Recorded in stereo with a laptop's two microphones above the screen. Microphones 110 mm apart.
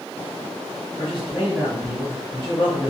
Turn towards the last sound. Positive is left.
turn(degrees=50)  # may be behind; listen again after turning